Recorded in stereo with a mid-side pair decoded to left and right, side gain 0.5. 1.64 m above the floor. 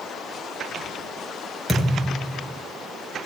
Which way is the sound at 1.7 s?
10° right.